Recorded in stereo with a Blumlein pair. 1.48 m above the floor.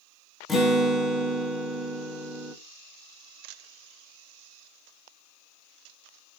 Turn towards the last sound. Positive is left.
turn(degrees=15)